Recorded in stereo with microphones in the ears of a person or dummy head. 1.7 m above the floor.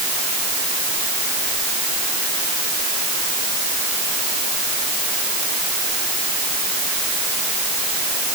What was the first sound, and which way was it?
Only background noise.